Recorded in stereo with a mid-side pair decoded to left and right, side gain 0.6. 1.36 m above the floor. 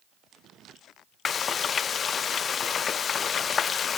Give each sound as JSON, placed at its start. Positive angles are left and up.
{"t": 1.2, "sound": "frying", "azimuth_deg": 35, "distance_m": 0.7}